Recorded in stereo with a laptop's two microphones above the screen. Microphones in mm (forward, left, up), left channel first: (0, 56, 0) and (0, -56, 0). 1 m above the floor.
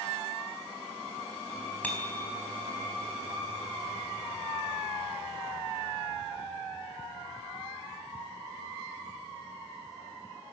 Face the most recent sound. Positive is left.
turn(degrees=15)  # may be behind; listen again after turning